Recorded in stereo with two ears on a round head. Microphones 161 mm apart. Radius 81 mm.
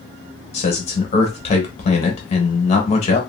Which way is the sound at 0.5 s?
35° left (ahead or behind).